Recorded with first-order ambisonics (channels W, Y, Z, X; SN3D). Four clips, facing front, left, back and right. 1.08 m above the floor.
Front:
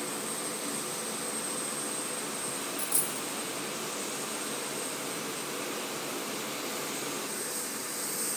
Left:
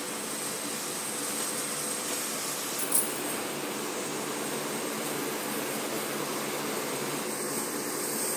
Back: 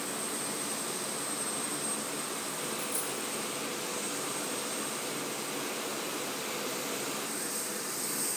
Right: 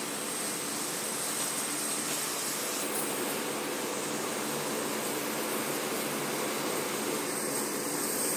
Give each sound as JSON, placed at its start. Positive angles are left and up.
{"t": 2.8, "sound": "a dropped coin", "azimuth_deg": 60, "distance_m": 1.0}